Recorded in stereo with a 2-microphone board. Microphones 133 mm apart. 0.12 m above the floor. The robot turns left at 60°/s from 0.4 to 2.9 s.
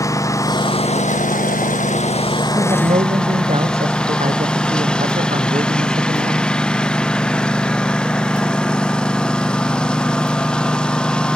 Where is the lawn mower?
155° left; by 11.4 s 5° left.